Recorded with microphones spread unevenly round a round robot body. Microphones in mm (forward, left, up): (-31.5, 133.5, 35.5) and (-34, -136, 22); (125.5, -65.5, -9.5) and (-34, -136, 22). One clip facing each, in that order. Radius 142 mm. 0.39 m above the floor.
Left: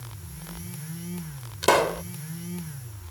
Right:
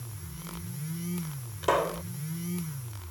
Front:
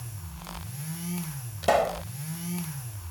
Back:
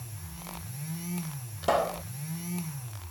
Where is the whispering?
I don't hear whispering.